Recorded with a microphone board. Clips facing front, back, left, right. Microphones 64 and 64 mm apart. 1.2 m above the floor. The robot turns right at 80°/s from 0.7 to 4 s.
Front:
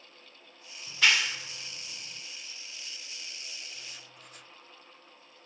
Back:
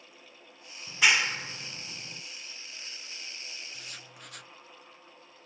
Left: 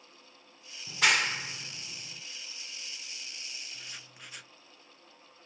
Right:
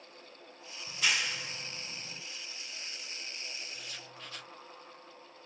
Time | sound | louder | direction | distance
0.9 | a clap | back 1 dB, left 6 dB | 95° left | 0.7 m
3.7 | writing | back 2 dB, right 2 dB | 140° left | 0.7 m